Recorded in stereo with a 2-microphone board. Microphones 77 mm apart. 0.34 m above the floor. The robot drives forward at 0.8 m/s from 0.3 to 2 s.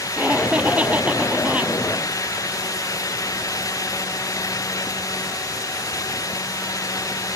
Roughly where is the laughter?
Centre.